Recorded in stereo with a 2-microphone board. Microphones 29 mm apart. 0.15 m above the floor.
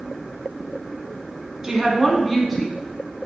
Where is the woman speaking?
20° right (ahead or behind), 1.5 m; by 2.7 s 10° left (ahead or behind), 1.3 m.